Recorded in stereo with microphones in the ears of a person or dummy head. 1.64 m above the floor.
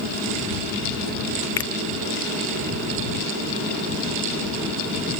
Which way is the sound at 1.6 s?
15° left (ahead or behind).